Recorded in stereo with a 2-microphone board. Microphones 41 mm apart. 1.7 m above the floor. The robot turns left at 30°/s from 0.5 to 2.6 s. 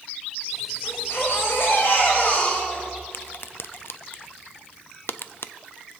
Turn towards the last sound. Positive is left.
turn(degrees=65)  # may be behind; listen again after turning